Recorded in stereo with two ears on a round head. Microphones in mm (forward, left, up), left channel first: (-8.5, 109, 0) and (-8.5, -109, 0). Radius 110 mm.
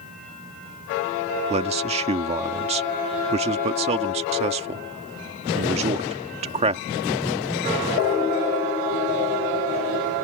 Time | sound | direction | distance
1.5 | a man speaking | 25° right (ahead or behind) | ?